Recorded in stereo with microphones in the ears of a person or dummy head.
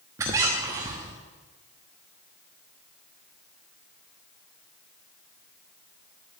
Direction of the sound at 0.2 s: 15° right (ahead or behind).